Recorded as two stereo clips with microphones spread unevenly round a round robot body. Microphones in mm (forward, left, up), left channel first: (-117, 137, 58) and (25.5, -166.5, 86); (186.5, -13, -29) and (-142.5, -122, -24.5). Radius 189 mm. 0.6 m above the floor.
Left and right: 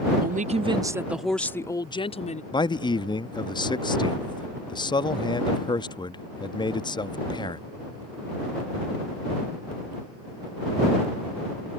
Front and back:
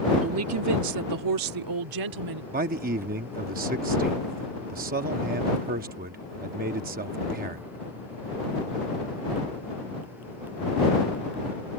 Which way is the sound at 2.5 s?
165° left.